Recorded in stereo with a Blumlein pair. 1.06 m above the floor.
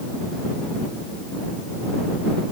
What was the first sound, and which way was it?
Only background noise.